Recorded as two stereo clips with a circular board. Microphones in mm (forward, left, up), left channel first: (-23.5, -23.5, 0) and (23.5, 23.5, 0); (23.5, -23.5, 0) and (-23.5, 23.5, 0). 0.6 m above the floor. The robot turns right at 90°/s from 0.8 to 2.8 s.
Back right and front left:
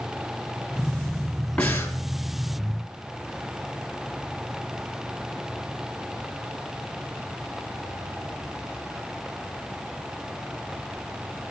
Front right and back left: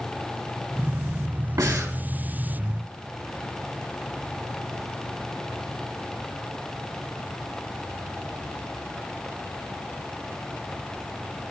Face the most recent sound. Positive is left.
turn(degrees=-95)